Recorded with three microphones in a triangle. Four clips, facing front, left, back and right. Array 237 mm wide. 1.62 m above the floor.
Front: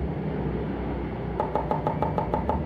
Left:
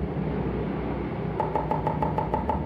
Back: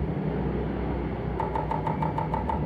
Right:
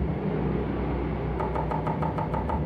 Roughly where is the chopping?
Ahead left.